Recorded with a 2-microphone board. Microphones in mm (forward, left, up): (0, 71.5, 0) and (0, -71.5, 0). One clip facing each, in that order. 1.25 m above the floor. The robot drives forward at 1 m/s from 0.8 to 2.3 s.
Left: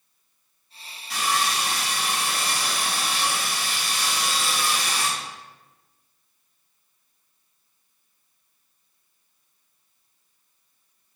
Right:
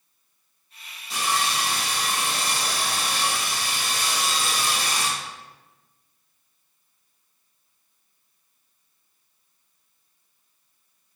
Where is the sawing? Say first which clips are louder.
Left 1 dB; 25° right (ahead or behind), 1.7 m; by 5.1 s 40° right (ahead or behind), 1.1 m.